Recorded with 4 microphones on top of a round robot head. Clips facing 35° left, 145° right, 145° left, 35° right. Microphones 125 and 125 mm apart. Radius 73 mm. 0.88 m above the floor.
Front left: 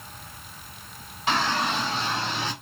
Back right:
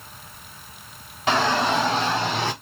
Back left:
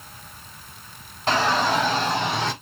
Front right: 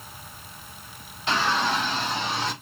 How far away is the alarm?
No alarm in this recording.